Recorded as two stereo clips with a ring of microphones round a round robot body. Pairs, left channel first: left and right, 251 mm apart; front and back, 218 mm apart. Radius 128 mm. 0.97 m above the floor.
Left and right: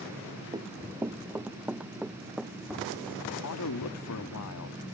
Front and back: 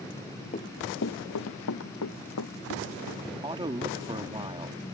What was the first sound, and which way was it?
Running footsteps, 30° right.